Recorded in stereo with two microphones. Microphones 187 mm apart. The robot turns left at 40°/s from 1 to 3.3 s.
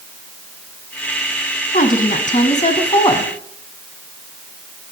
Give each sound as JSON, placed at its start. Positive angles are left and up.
{"t": 1.7, "sound": "a woman speaking", "azimuth_deg": 95, "distance_m": 2.0}